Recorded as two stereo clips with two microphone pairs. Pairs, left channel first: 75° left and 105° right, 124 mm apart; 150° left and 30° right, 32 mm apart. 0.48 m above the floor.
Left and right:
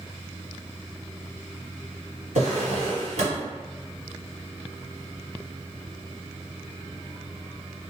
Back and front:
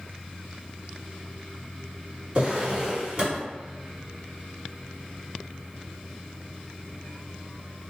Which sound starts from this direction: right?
A drawer, at 2.4 s.